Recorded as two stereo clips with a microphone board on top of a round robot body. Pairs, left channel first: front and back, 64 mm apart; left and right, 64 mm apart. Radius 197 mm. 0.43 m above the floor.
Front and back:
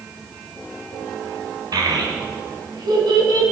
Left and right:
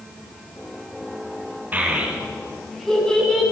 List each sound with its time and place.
1.7 s a child speaking: 155° right, 2.5 m; by 3.4 s 165° left, 4 m